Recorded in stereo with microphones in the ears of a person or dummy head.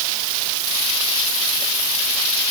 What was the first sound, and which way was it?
Only background noise.